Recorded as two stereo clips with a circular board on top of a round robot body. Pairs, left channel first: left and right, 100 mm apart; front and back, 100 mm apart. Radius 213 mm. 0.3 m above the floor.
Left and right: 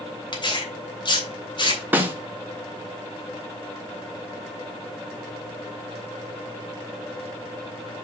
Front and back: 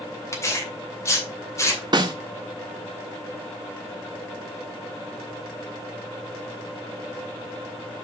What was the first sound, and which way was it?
Tearing paper, 60° left.